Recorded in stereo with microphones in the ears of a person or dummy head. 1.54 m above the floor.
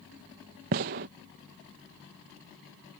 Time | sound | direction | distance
0.7 | a gunshot | 35° right (ahead or behind) | ?